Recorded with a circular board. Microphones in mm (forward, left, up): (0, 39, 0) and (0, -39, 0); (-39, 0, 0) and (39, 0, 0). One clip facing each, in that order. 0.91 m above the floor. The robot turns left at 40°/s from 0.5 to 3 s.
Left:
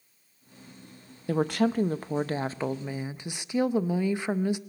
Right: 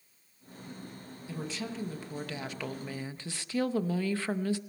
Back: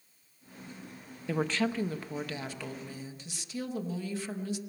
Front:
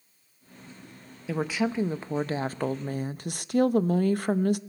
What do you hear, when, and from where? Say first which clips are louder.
1.3 s a woman speaking: left 13 dB, front 2 dB; 90° left, 0.6 m; by 4.6 s 20° left, 0.6 m